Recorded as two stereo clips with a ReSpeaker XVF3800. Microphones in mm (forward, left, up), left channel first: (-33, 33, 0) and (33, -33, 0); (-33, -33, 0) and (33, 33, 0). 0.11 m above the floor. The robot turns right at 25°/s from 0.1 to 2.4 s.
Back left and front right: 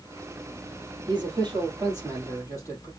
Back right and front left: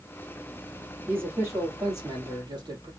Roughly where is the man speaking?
Ahead right.